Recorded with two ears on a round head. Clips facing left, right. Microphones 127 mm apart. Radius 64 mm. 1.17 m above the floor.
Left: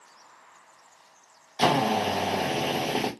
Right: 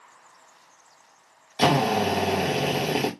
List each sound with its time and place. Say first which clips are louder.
1.6 s a drill: right 2 dB; 15° right (ahead or behind), 1.0 m